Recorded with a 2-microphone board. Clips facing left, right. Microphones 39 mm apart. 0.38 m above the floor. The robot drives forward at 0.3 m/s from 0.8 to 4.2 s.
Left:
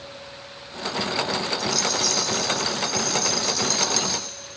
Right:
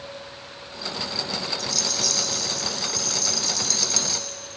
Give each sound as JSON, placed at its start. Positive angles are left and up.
{"t": 1.6, "sound": "a rattle", "side_deg": 5, "distance_m": 2.0}